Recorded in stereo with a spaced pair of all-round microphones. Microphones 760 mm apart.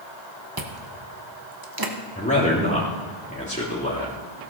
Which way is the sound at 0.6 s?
30° right (ahead or behind).